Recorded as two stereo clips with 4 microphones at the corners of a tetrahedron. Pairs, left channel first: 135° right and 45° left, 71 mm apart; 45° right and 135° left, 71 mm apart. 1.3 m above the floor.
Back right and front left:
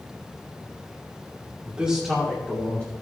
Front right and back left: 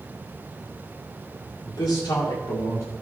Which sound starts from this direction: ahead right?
A man speaking, at 1.7 s.